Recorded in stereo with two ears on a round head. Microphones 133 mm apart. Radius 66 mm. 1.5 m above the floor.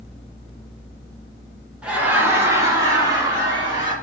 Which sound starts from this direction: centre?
Laughter, at 1.8 s.